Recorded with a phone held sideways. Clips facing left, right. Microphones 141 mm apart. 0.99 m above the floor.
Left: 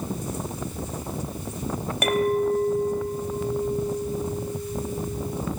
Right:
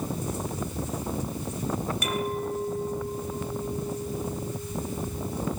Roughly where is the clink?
Left.